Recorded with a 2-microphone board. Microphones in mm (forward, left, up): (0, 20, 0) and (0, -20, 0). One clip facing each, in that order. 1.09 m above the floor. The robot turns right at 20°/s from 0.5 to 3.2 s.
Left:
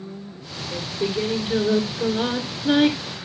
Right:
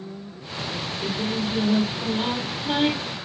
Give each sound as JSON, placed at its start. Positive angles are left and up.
{"t": 0.7, "sound": "singing", "azimuth_deg": 50, "distance_m": 2.5}